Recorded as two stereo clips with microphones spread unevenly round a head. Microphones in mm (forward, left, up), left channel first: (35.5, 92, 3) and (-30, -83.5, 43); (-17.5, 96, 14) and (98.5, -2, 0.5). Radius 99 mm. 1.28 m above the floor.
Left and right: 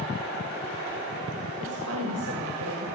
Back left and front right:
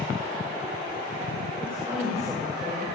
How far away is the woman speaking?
About 6.5 m.